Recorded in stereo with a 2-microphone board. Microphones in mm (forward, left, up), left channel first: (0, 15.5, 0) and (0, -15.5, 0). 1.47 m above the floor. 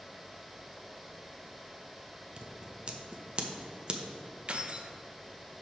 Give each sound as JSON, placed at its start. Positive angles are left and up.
{"t": 2.4, "sound": "scissors", "side_deg": -40, "distance_m": 0.8}
{"t": 4.5, "sound": "keys jangling", "side_deg": -40, "distance_m": 0.7}